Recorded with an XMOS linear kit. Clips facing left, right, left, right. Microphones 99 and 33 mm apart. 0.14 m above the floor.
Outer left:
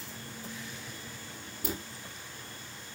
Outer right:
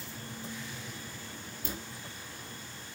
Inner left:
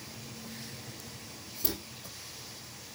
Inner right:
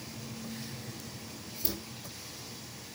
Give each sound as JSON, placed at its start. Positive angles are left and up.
{"t": 1.6, "sound": "a dropped coin", "side_deg": 70, "distance_m": 3.5}